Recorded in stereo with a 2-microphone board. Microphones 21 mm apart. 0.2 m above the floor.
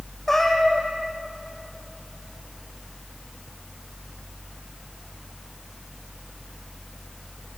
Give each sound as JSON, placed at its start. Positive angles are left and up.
{"t": 0.3, "sound": "a cat meowing", "side_deg": 15, "distance_m": 4.0}